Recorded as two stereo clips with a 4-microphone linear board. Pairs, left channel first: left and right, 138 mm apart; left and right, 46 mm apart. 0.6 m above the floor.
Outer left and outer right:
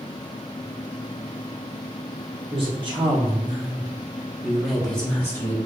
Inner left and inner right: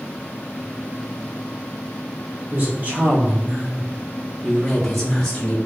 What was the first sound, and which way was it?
A woman speaking, 40° right (ahead or behind).